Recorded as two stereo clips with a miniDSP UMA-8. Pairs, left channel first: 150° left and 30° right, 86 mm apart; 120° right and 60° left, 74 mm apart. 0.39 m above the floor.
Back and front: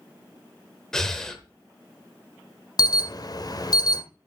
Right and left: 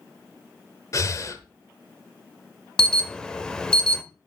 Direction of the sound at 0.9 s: 130° right.